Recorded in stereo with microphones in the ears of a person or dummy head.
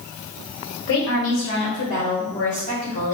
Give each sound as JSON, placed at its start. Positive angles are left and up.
{"t": 0.9, "sound": "a woman speaking", "side_deg": 60, "distance_m": 1.3}